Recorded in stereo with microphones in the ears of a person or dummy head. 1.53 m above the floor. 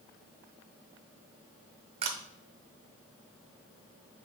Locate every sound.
2.0 s a camera shutter: 30° right (ahead or behind), 0.6 m